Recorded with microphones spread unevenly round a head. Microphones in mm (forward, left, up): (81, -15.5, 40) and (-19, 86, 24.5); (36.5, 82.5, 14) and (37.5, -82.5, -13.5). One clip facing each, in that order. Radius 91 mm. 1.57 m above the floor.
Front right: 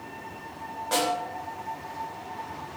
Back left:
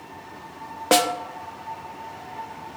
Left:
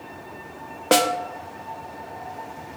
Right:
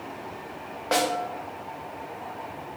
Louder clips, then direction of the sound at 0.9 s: Back left 7 dB, left 5 dB; 135° left.